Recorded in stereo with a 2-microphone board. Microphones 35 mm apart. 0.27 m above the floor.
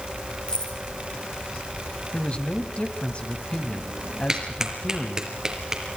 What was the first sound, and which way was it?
Keys jangling, 30° left (ahead or behind).